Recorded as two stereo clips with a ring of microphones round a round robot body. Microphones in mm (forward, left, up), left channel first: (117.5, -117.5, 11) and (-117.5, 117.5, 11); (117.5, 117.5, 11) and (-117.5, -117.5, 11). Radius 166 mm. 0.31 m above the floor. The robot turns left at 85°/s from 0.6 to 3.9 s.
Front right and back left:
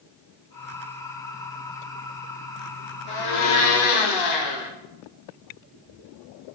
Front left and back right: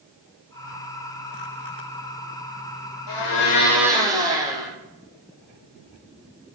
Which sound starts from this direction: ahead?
A blender, at 3.1 s.